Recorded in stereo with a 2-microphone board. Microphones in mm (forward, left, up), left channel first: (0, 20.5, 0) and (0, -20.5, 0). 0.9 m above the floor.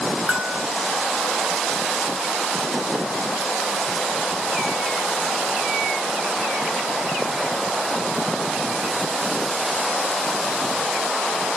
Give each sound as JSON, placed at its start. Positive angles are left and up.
{"t": 0.3, "sound": "a bell", "side_deg": -15, "distance_m": 0.9}